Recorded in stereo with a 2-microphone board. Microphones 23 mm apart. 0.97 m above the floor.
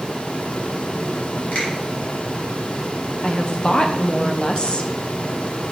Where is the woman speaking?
40° left (ahead or behind), 0.8 m.